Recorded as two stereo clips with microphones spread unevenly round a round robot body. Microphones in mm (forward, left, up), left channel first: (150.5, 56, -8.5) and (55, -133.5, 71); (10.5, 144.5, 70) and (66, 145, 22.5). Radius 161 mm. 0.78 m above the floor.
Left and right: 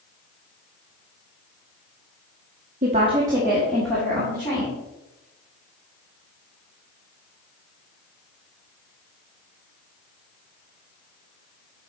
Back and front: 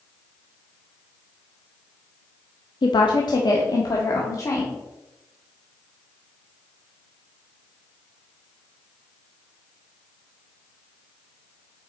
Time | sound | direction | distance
2.8 | a woman speaking | 175° left | 0.8 m